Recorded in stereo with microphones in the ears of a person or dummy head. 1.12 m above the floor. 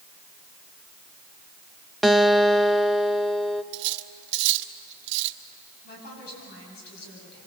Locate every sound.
2.0 s a guitar: centre (ahead or behind), 0.6 m
3.7 s cutlery clinking: 60° right (ahead or behind), 0.9 m
5.8 s a woman speaking: 55° left (ahead or behind), 9.5 m